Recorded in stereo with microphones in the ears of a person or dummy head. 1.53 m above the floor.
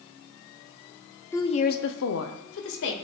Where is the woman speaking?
10° left (ahead or behind), 0.6 m; by 2.9 s 70° left (ahead or behind), 1.3 m.